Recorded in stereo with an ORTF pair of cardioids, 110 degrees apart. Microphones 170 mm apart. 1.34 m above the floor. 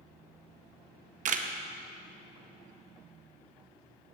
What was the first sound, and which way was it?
A camera shutter, 50° right.